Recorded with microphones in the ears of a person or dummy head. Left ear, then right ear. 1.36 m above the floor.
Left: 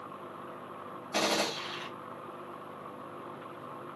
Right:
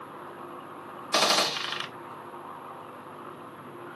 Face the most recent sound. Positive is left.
turn(degrees=-60)  # may be behind; listen again after turning